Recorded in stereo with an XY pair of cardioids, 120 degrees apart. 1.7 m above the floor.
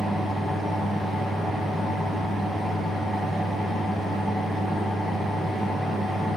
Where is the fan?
10° left, 0.8 m.